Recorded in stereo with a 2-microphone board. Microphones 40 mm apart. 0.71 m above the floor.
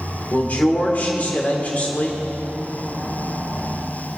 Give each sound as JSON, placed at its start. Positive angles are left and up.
{"t": 0.3, "sound": "a man speaking", "side_deg": 45, "distance_m": 2.5}